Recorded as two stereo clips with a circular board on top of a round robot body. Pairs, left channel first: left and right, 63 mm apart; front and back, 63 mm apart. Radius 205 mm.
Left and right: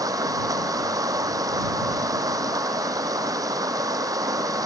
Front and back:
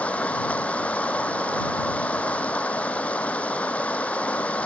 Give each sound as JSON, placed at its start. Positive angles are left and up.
{"t": 0.0, "sound": "running water", "azimuth_deg": -70}